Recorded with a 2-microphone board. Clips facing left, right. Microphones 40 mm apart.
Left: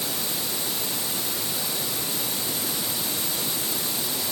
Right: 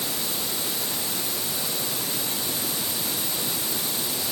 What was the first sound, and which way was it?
Only background noise.